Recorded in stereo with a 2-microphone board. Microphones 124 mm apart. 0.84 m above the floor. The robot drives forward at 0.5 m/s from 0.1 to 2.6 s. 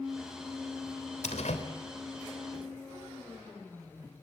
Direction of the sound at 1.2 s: 80° left.